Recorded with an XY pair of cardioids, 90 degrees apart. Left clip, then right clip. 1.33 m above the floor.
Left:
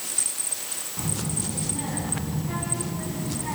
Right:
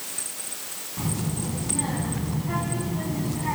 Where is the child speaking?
20° right, 6 m; by 3.6 s 40° right, 6 m.